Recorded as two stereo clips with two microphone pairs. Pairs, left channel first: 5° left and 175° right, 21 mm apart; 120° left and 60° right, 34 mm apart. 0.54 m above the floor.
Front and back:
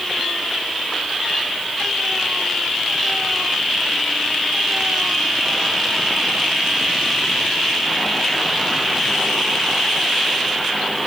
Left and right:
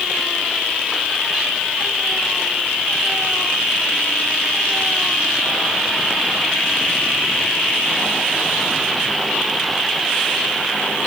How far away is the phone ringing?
No phone ringing in this recording.